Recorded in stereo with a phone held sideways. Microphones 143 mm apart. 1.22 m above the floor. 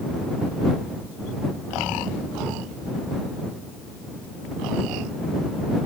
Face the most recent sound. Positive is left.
No sound to turn to.